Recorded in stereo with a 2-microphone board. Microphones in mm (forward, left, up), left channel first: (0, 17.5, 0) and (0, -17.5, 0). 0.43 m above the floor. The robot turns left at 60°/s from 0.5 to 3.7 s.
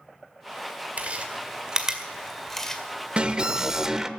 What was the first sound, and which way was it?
Chewing, 45° right (ahead or behind).